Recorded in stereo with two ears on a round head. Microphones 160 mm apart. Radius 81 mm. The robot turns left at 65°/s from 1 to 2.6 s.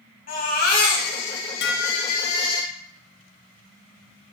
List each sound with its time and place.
0.3 s a baby crying: 130° left, 4.5 m; by 2.6 s 25° left, 4.5 m
1.6 s dishes clattering: 80° left, 1.2 m; by 2.4 s 30° left, 1.2 m